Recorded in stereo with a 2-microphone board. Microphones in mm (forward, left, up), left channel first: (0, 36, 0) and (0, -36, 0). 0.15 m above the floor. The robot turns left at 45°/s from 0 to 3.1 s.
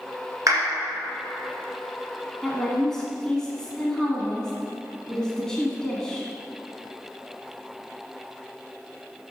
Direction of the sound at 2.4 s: 5° right (ahead or behind).